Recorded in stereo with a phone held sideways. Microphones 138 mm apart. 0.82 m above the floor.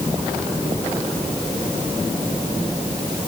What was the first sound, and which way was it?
Only background noise.